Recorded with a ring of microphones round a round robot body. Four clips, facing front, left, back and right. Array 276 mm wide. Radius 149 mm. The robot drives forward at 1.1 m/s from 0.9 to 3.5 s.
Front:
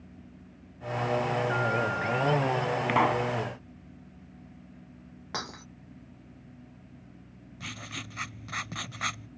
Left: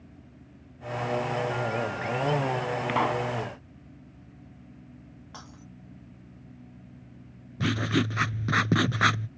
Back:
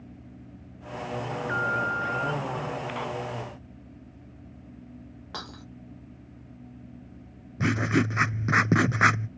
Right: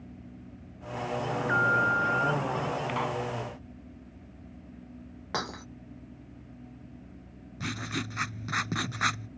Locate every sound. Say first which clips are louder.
1.3 s an alarm: right 2 dB, front 1 dB; 105° right; by 2.8 s 110° right
2.9 s a pop: left 5 dB, front 8 dB; 25° left; by 3.3 s 30° left
5.3 s breaking glass: right 14 dB, front 3 dB; 80° right
7.6 s writing: left 9 dB, back 19 dB; 150° left